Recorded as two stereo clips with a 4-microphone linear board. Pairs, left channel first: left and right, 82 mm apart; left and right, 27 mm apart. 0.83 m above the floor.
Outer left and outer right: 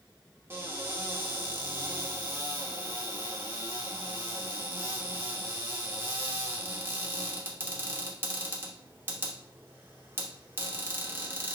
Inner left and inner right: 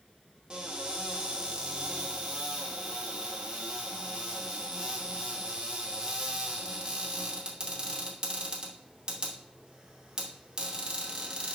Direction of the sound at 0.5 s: 30° right (ahead or behind).